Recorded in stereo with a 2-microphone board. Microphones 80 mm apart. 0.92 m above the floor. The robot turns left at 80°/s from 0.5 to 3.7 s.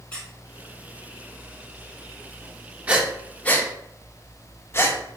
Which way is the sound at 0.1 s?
15° left (ahead or behind).